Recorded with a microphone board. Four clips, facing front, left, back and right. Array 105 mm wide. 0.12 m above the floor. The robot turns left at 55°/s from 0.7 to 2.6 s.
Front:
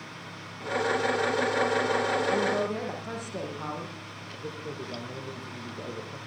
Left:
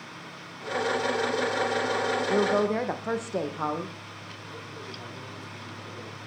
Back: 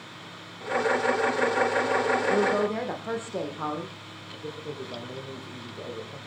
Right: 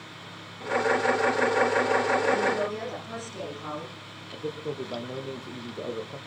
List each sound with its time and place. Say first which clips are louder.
2.3 s a woman speaking: left 2 dB, back 3 dB; 130° left, 6 m; by 3.9 s 110° left, 6 m
4.3 s a man speaking: right 13 dB, back 1 dB; 90° right, 4.5 m